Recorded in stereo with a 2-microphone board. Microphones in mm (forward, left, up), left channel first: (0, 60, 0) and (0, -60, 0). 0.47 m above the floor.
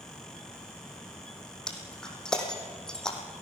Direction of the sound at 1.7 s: 5° left (ahead or behind).